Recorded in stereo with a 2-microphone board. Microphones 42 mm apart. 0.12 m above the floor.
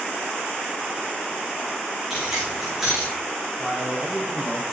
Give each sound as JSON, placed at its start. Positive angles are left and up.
{"t": 2.1, "sound": "keys jangling", "side_deg": -15, "distance_m": 9.5}
{"t": 3.6, "sound": "a man speaking", "side_deg": 10, "distance_m": 5.0}